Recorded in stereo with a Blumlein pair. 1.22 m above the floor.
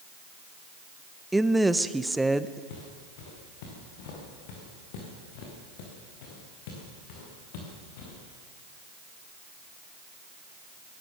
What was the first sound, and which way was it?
A woman speaking, 5° right.